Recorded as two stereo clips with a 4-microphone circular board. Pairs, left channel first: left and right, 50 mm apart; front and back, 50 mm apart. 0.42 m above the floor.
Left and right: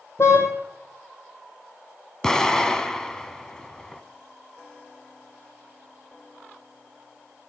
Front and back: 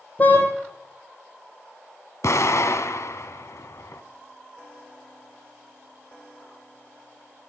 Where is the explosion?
10° left, 1.9 m.